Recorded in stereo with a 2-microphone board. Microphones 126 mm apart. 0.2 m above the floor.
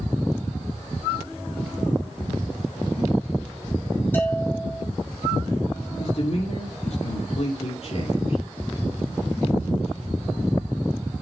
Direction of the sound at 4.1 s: 15° left (ahead or behind).